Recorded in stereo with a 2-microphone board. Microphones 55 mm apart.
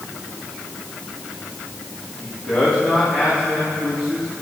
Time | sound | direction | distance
2.2 | a man speaking | 25° left (ahead or behind) | 3 m